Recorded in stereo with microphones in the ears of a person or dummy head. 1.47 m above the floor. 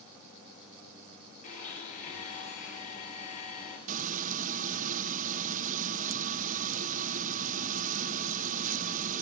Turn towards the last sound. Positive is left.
turn(degrees=-40)  # may be behind; listen again after turning